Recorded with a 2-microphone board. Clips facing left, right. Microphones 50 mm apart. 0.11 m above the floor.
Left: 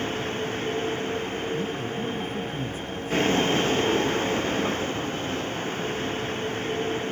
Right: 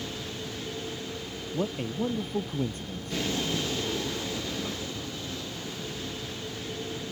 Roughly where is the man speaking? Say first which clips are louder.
Left 2 dB; right.